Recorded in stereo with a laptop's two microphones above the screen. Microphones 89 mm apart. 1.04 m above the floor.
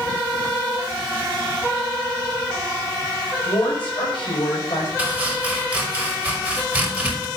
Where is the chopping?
15° right (ahead or behind), 4 m.